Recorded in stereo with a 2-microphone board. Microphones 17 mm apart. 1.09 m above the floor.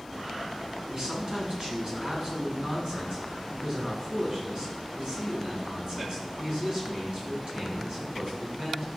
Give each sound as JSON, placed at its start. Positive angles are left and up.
{"t": 0.9, "sound": "a man speaking", "side_deg": -50, "distance_m": 8.5}